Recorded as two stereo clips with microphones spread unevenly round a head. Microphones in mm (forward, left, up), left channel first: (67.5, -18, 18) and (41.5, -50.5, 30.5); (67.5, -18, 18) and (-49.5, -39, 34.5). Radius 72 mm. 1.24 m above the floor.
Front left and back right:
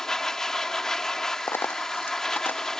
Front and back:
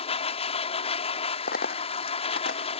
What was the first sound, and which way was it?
A machine running, 30° right.